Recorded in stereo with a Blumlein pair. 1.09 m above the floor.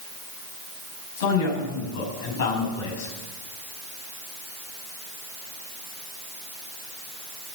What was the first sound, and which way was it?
A man speaking, 50° left.